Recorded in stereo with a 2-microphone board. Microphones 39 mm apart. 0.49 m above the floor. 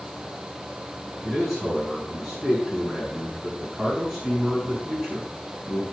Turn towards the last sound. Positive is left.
turn(degrees=-25)  # may be behind; listen again after turning